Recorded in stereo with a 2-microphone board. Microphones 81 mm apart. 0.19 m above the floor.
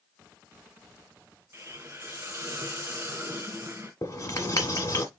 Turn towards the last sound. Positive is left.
turn(degrees=40)  # may be behind; listen again after turning